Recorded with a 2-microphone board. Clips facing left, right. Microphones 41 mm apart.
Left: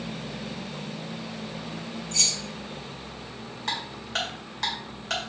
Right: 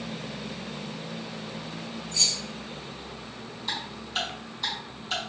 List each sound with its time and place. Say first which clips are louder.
2.1 s keys jangling: even; 75° left (ahead or behind), 0.9 m
3.7 s ticking: left 2 dB; 80° left, 1.9 m